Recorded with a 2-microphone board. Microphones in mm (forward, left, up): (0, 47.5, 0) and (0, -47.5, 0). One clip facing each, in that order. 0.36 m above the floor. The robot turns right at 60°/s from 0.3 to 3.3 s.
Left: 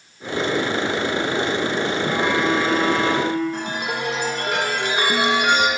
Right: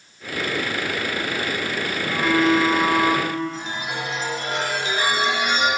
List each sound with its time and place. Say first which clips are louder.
2.0 s a phone buzzing: right 4 dB; 145° left, 1.2 m; by 3.4 s 140° right, 1.2 m
3.5 s a chime: left 3 dB; 70° left (ahead or behind), 1.7 m